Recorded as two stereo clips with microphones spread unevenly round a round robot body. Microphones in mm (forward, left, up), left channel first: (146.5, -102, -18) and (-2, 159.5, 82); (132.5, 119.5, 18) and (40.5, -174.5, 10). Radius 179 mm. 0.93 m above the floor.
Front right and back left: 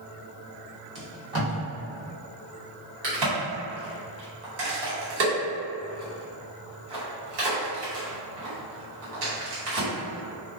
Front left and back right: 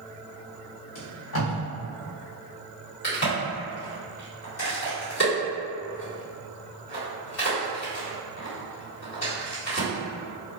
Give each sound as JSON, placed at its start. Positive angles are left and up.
{"t": 0.9, "sound": "tape being pulled", "azimuth_deg": 75, "distance_m": 1.2}
{"t": 3.0, "sound": "a crack", "azimuth_deg": 120, "distance_m": 1.4}